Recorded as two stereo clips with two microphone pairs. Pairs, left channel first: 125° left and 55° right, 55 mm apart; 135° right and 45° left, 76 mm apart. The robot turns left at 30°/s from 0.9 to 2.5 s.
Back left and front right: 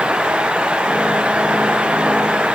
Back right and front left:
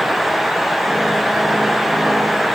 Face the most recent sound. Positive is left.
No sound to turn to.